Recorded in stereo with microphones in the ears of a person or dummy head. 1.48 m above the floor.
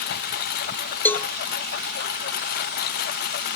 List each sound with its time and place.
0.0 s a lawn mower: 60° left (ahead or behind)
1.1 s a cowbell: 5° left (ahead or behind)